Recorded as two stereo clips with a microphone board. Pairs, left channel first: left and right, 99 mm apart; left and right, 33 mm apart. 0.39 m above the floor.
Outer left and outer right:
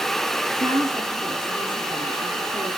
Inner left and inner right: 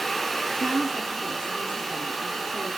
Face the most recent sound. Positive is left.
turn(degrees=-50)  # may be behind; listen again after turning